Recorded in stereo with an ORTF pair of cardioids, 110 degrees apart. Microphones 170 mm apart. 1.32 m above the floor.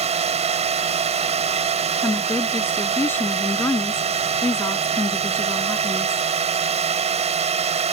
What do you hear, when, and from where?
0.0 s a drone: 40° right
2.0 s a woman speaking: 15° left